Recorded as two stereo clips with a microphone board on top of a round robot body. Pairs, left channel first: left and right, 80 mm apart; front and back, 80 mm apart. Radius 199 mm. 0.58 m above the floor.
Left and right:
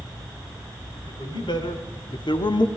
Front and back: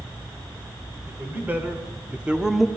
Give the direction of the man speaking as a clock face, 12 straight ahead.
8 o'clock.